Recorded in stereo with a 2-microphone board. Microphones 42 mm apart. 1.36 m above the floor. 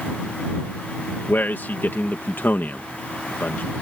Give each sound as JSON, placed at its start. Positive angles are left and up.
{"t": 1.3, "sound": "a man speaking", "side_deg": 60}